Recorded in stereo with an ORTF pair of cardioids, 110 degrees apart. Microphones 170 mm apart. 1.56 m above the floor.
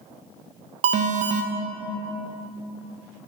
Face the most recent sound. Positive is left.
turn(degrees=-45)